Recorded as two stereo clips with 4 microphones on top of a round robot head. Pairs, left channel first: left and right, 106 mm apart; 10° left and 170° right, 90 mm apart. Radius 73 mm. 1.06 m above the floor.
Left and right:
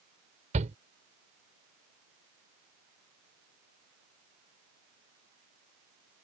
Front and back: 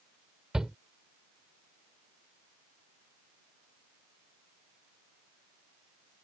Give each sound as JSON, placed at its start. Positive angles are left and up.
{"t": 0.5, "sound": "a shout", "azimuth_deg": -80}